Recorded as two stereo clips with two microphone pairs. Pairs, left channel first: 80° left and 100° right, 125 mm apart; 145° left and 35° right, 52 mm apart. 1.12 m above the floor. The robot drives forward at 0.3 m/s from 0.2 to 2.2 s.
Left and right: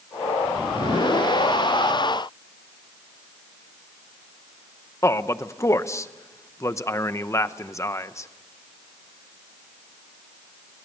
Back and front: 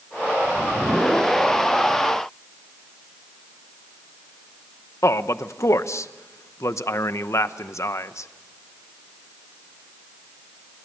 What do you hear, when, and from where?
5.0 s a man speaking: 140° left, 0.9 m